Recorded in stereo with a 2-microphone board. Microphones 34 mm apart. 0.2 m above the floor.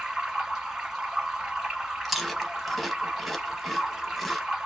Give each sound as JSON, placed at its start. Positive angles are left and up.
{"t": 0.0, "sound": "running water", "side_deg": -10, "distance_m": 1.4}
{"t": 2.0, "sound": "chewing", "side_deg": 5, "distance_m": 0.6}